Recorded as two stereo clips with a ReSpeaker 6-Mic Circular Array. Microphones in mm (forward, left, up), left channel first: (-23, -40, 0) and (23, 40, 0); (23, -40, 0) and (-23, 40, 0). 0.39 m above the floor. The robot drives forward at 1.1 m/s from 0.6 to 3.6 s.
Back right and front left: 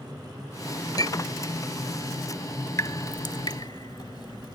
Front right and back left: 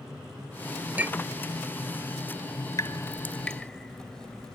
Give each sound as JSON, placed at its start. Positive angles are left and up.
{"t": 1.0, "sound": "a clink", "azimuth_deg": -170}
{"t": 2.8, "sound": "dripping", "azimuth_deg": -85}